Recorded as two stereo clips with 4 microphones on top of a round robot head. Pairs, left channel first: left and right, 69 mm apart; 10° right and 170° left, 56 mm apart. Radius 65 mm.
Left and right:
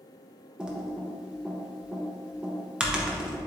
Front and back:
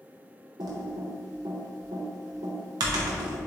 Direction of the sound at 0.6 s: 165° right.